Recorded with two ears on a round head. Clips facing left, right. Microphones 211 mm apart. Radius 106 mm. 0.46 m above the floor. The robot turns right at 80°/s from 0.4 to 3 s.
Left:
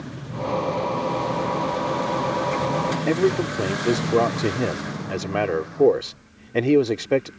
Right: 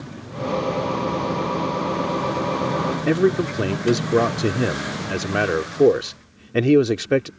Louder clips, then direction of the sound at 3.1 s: Right 2 dB; 15° right (ahead or behind).